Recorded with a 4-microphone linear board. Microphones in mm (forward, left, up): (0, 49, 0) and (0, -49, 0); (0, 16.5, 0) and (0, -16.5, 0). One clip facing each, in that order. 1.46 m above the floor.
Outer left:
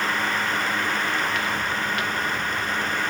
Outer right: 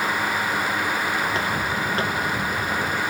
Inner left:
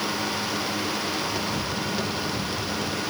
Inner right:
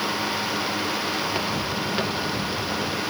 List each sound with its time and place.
1.2 s footsteps: 30° right (ahead or behind); by 3.0 s 35° right (ahead or behind)